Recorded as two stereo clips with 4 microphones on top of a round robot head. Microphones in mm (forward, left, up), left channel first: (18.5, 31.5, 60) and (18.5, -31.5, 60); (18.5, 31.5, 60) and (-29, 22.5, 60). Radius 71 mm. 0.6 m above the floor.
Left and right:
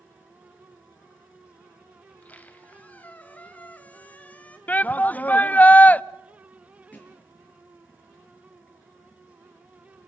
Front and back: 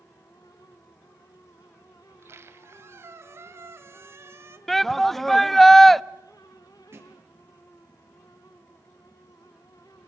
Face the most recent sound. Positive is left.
turn(degrees=160)